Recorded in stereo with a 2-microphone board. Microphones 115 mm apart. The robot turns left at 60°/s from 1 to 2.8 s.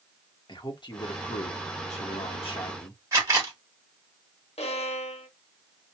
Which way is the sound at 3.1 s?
25° right (ahead or behind).